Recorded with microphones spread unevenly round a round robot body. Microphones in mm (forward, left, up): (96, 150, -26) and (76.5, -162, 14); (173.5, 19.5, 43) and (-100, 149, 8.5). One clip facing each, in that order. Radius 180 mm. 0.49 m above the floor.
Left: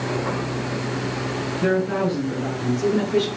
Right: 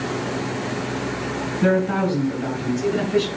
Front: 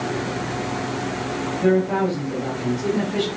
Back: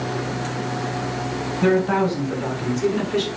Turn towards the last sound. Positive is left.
turn(degrees=180)